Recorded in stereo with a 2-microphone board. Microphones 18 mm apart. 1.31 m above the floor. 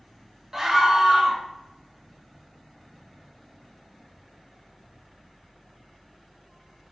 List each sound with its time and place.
0.5 s a scream: 30° right (ahead or behind), 0.6 m